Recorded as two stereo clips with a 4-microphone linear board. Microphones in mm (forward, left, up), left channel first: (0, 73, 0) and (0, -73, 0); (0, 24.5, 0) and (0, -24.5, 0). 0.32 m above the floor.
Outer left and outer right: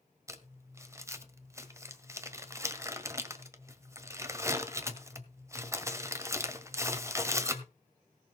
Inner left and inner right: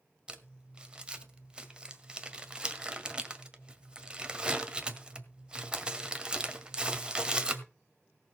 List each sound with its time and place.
0.3 s crumpling: 20° right (ahead or behind), 1.6 m